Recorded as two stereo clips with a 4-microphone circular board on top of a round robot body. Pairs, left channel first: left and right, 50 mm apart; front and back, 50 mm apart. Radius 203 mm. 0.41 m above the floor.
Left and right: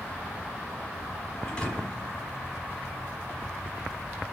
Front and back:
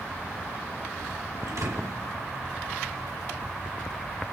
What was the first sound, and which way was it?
A thud, 165° left.